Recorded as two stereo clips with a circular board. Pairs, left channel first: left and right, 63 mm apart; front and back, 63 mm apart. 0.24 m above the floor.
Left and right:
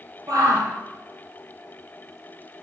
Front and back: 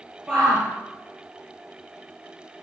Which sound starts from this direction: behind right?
A shout, at 0.3 s.